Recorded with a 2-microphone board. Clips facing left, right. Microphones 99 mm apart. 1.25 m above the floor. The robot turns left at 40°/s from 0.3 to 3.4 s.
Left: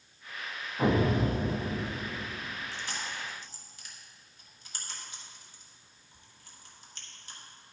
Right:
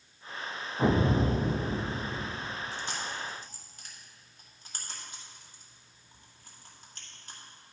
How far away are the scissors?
I don't hear scissors.